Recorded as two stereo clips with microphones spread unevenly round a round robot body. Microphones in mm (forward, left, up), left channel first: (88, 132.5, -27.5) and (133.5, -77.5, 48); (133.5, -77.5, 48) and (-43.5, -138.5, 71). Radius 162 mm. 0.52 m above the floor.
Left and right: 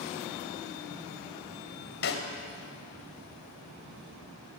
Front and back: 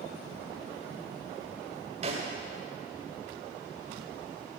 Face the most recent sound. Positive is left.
turn(degrees=135)